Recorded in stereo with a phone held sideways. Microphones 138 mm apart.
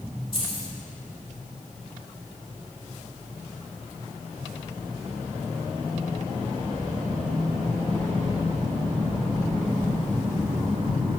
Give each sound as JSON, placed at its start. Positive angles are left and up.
{"t": 0.3, "sound": "keys jangling", "side_deg": 40, "distance_m": 3.0}